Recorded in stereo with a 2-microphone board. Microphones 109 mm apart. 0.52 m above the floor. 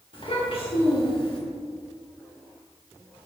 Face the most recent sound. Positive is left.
turn(degrees=50)  # may be behind; listen again after turning